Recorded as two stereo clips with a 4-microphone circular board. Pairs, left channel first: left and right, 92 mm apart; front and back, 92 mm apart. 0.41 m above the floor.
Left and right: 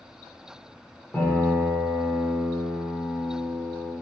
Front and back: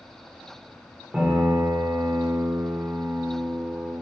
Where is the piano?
130° left, 1.0 m.